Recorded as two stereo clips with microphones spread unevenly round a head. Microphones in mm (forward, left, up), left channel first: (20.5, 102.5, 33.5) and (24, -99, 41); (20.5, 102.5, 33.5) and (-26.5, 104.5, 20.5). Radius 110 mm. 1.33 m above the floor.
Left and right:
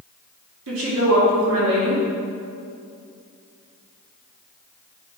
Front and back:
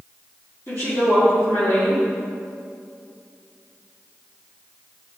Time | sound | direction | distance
0.7 | a woman speaking | 75° right | 2.5 m